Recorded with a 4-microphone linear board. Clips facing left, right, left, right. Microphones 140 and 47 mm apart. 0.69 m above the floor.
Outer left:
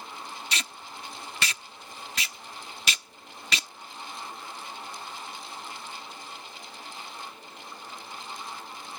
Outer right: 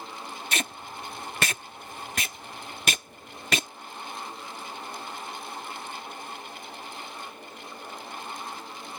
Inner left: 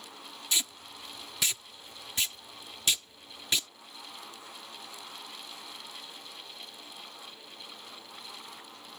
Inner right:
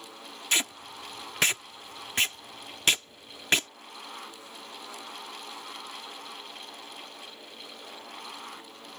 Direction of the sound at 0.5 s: 50° right (ahead or behind).